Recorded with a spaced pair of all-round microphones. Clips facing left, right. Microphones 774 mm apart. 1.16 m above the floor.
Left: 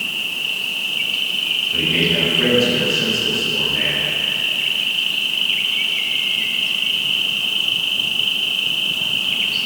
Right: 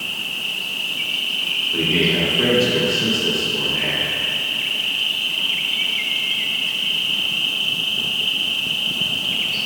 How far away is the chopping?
I don't hear chopping.